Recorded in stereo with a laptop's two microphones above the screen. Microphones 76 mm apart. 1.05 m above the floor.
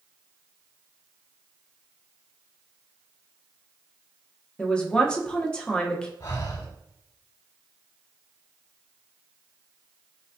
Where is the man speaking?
10° left (ahead or behind), 0.8 m.